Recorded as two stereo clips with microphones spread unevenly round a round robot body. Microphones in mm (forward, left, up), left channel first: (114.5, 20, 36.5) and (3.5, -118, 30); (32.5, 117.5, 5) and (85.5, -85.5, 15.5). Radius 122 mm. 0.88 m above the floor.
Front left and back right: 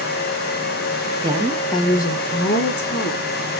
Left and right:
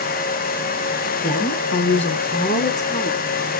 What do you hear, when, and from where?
1.2 s a woman speaking: 160° left, 1.2 m; by 3.3 s 45° left, 2.5 m